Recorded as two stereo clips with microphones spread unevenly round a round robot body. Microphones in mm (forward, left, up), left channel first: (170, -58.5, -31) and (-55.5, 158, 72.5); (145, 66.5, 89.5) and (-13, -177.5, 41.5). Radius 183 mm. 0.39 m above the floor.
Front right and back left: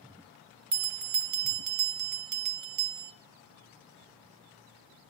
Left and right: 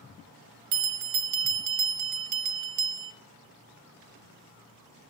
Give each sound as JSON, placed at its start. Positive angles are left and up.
{"t": 0.7, "sound": "a bell", "azimuth_deg": -175, "distance_m": 0.7}